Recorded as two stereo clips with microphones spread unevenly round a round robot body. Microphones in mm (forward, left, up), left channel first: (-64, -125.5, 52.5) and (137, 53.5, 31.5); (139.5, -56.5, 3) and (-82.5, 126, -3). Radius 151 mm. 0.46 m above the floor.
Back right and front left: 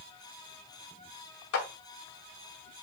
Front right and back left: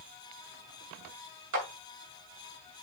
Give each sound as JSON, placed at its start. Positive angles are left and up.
{"t": 1.5, "sound": "a clap", "azimuth_deg": -175, "distance_m": 2.0}